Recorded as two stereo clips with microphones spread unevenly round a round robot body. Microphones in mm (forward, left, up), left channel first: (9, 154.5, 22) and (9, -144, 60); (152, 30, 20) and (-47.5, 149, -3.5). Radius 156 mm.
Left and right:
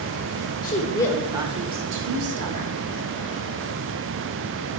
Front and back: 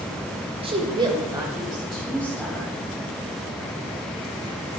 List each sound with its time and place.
0.6 s a woman speaking: 110° left, 1.1 m; by 2.7 s 115° right, 1.6 m